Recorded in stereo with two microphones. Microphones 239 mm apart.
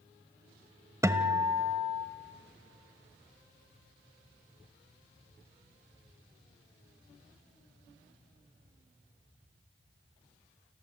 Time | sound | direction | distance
1.0 | a guitar | 10° right (ahead or behind) | 1.1 m